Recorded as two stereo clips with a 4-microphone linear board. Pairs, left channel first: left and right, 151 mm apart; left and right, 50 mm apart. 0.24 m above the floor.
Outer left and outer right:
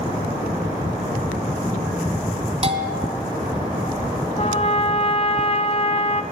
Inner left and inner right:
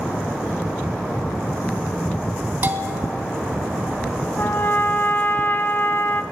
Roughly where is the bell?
Right.